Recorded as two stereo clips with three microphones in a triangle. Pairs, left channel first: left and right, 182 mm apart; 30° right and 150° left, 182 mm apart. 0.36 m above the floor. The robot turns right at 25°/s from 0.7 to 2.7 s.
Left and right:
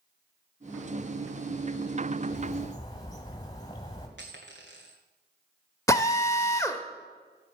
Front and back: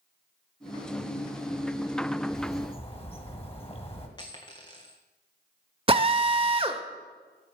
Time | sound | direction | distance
2.3 | a bird | 10° left | 1.7 m
4.2 | a dropped coin | 95° right | 1.8 m
5.9 | a drill | 140° left | 0.7 m